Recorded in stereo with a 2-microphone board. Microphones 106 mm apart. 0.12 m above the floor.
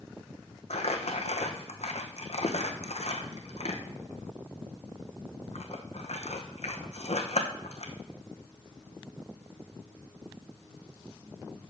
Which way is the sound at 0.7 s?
80° left.